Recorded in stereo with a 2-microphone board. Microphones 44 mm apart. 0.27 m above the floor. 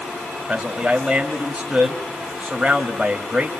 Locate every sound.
0.5 s a man speaking: 10° right (ahead or behind), 1.4 m